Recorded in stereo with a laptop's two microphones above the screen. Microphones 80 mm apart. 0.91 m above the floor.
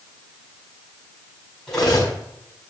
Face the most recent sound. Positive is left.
turn(degrees=10)  # may be behind; listen again after turning